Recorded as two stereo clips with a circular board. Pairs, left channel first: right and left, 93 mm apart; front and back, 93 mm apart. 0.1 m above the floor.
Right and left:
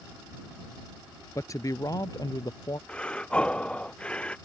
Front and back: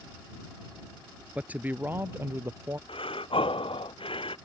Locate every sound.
1.4 s a man speaking: 115° right; by 2.8 s 125° right
2.9 s breathing: 10° right